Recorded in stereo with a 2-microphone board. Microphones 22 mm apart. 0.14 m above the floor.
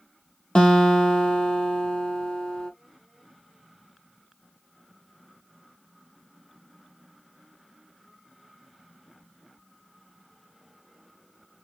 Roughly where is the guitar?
Left.